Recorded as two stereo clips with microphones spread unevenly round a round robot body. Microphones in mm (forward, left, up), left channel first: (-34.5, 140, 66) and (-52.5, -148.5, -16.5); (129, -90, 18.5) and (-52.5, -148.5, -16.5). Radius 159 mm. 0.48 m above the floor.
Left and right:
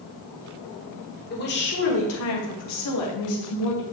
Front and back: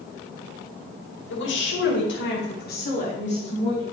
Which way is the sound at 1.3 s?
25° left.